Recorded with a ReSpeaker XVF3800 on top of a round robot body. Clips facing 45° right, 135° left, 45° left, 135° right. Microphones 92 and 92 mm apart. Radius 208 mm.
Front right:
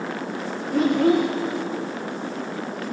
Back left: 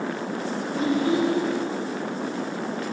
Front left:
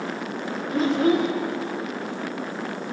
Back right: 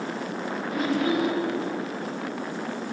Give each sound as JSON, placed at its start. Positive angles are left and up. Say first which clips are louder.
{"t": 0.7, "sound": "a child speaking", "louder": "front right 5 dB, front left 5 dB", "azimuth_deg": -15, "distance_m": 0.7}